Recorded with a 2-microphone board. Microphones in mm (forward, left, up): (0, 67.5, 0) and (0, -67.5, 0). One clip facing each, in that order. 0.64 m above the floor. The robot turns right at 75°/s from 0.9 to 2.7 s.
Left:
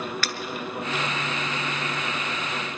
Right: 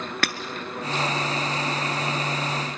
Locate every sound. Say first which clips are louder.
0.2 s breaking glass: right 4 dB; 65° right (ahead or behind), 1.1 m